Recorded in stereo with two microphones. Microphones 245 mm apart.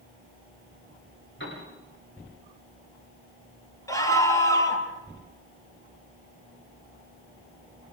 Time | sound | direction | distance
1.4 | a piano | 55° left (ahead or behind) | 9 m
3.9 | a scream | 15° left (ahead or behind) | 3.5 m